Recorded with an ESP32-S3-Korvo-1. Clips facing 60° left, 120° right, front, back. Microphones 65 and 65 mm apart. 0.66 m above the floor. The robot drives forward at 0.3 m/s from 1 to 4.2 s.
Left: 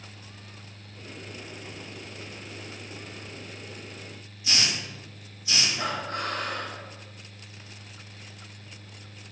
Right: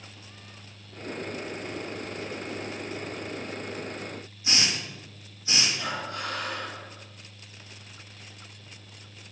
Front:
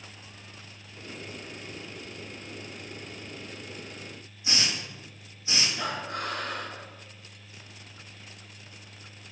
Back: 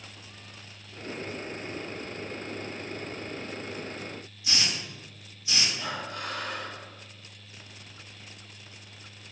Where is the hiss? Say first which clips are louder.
Even, front 1 dB; 60° right, 4 m.